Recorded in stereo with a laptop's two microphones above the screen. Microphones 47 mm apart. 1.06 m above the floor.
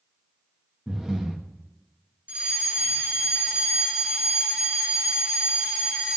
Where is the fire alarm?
25° right (ahead or behind), 1.7 m.